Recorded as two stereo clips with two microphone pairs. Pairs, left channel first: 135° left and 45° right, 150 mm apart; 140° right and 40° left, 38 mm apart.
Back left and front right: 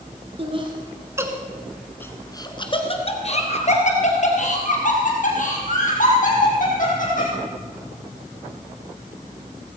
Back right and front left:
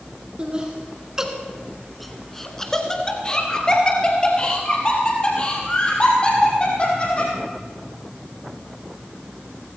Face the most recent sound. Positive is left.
turn(degrees=160)